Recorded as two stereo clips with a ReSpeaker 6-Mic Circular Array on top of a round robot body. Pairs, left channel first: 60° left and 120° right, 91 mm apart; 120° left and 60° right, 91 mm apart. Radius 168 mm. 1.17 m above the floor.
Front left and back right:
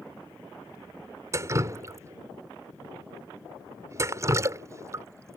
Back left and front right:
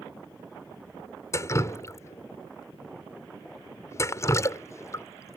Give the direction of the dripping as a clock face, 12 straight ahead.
6 o'clock.